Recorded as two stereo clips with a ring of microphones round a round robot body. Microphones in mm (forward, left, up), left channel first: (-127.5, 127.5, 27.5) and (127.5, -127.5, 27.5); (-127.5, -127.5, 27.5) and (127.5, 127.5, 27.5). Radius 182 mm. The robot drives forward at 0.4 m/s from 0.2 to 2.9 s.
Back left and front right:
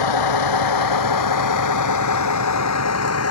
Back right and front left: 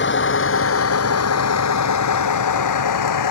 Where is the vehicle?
165° left; by 3.3 s 175° right.